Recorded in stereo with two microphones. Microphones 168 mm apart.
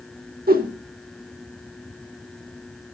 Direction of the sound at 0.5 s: 65° right (ahead or behind).